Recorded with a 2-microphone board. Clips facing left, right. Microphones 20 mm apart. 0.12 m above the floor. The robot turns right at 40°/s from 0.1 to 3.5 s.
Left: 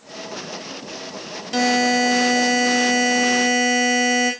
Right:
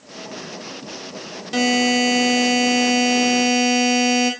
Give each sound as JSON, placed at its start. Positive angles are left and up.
{"t": 1.5, "sound": "a buzzer", "azimuth_deg": -170, "distance_m": 2.0}